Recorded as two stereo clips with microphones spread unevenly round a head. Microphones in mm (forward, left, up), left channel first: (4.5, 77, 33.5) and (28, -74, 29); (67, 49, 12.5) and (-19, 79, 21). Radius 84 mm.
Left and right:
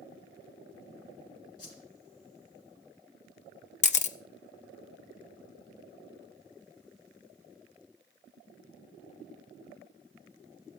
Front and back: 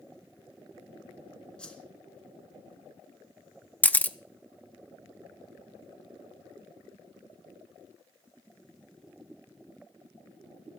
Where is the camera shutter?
55° left, 0.7 m.